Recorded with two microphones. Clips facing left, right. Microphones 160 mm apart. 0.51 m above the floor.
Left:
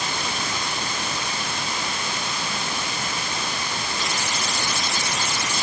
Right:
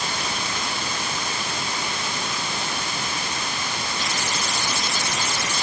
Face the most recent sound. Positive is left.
No sound to turn to.